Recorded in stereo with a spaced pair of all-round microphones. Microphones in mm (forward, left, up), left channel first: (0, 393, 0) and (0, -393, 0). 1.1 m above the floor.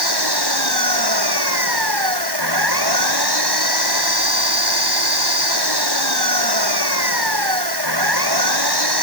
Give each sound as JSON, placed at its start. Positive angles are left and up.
{"t": 0.0, "sound": "an engine running", "side_deg": -30}